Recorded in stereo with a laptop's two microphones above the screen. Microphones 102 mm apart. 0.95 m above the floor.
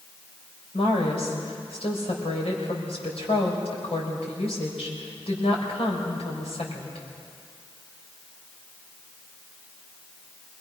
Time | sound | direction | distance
0.7 | a woman speaking | 75° left (ahead or behind) | 5 m